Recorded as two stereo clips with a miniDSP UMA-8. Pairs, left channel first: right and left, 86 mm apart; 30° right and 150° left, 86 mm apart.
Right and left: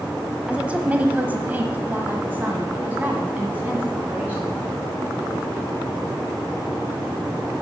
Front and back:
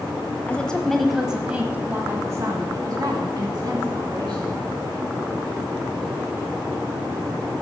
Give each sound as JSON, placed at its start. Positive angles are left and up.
{"t": 0.5, "sound": "a woman speaking", "azimuth_deg": 30, "distance_m": 1.1}